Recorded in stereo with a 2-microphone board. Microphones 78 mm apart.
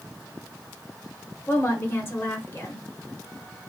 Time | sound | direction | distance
1.5 | a woman speaking | 30° left (ahead or behind) | 1.0 m